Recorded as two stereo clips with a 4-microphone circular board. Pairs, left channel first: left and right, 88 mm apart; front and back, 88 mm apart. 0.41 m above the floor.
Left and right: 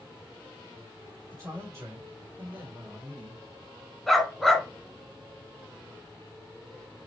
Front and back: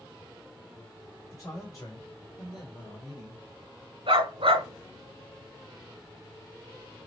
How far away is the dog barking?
About 1.2 m.